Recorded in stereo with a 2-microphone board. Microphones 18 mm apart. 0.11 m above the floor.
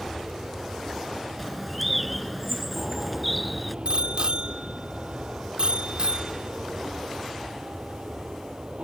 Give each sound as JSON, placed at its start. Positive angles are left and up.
{"t": 0.0, "sound": "an aircraft", "side_deg": -60}
{"t": 1.4, "sound": "a bird", "side_deg": 0}
{"t": 3.9, "sound": "a bicycle bell", "side_deg": -50}